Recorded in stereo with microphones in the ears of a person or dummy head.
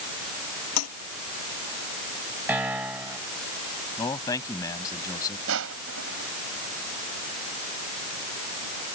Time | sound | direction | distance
0.8 | a toilet flushing | 85° left | ?
2.5 | a piano | 5° right (ahead or behind) | ?
4.0 | a man speaking | 25° left (ahead or behind) | ?
5.5 | crushing | 75° right (ahead or behind) | ?